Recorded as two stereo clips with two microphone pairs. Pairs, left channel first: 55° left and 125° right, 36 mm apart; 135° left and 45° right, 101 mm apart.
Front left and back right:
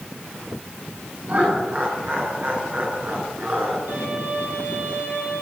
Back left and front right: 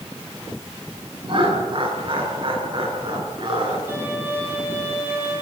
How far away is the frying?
No frying in this recording.